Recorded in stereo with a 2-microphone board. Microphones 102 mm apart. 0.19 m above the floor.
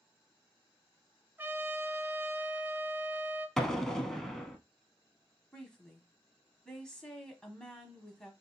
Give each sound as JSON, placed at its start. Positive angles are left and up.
{"t": 1.4, "sound": "a trumpet", "side_deg": -20, "distance_m": 0.8}
{"t": 3.6, "sound": "an explosion", "side_deg": 5, "distance_m": 0.6}
{"t": 5.5, "sound": "a woman speaking", "side_deg": 5, "distance_m": 1.0}